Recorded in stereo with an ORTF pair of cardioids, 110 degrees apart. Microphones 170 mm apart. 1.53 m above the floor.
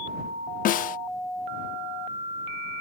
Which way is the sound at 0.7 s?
55° left.